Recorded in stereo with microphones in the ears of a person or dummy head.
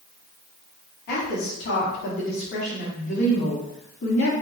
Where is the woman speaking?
50° left (ahead or behind), 1.6 m.